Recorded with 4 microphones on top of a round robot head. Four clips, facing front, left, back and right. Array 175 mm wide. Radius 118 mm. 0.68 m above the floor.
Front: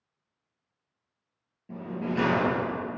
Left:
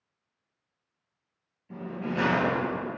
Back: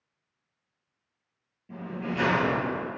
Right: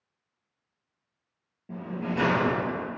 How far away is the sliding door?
About 2 m.